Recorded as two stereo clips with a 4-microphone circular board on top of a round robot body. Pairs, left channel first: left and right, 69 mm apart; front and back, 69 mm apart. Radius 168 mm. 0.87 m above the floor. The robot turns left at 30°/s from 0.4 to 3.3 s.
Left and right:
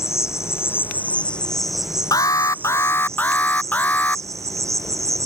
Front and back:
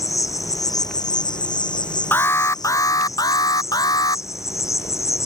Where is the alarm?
60° left; by 4.2 s 25° left.